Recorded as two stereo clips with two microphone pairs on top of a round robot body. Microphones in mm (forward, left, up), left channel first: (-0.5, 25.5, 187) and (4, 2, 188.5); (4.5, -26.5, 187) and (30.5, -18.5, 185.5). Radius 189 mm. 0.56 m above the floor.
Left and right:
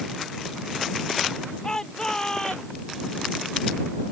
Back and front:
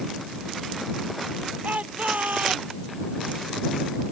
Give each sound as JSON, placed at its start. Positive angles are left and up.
{"t": 1.6, "sound": "a shout", "azimuth_deg": 35}